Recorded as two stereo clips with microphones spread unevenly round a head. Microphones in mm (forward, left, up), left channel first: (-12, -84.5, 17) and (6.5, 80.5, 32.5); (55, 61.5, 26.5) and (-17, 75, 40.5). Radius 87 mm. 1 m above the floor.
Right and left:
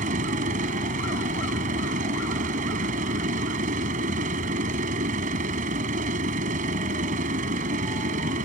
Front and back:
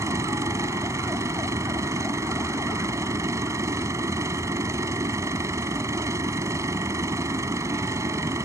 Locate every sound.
0.0 s a machine running: 130° left